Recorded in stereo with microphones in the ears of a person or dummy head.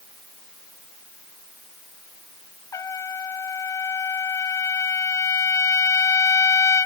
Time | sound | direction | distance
2.7 | a trumpet | 15° left (ahead or behind) | ?